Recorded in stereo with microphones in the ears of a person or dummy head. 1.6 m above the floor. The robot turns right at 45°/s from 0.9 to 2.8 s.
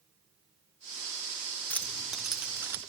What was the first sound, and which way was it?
Keys jangling, 5° left (ahead or behind).